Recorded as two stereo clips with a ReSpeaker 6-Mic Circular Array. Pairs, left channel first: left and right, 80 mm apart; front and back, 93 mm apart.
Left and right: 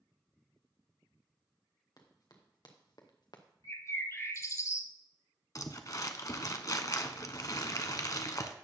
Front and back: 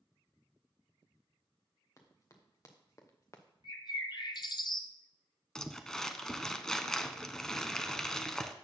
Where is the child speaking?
I don't hear a child speaking.